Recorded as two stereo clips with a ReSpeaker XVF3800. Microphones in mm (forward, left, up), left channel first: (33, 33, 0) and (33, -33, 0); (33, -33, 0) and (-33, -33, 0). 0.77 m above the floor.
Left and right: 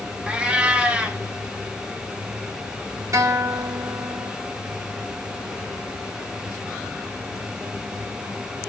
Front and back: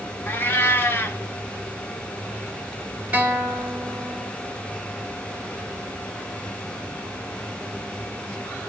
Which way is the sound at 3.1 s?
120° right.